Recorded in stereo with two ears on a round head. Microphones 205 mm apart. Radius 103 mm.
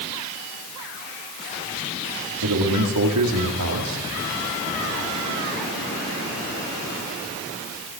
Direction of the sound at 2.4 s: 90° right.